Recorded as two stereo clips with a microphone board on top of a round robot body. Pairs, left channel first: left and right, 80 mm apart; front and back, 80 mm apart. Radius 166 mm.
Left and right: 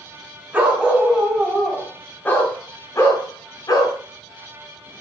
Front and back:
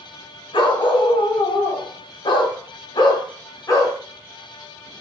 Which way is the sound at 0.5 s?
15° right.